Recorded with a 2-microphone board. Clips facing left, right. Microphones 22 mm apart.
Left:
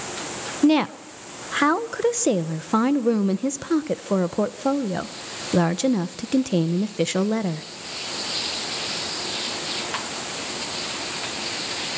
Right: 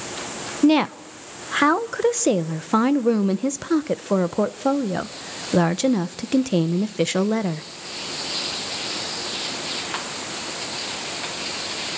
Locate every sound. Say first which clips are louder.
0.6 s a woman speaking: right 1 dB; 10° right (ahead or behind), 0.7 m